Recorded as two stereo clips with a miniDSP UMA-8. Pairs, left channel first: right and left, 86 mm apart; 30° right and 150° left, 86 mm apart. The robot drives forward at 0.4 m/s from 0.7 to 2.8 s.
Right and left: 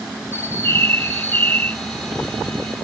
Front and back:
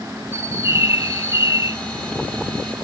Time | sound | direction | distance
0.3 | a bird | 150° right | ?